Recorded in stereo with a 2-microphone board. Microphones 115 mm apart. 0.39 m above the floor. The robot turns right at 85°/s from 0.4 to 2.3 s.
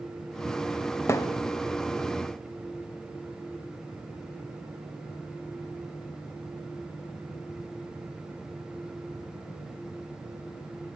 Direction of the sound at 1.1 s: 25° left (ahead or behind).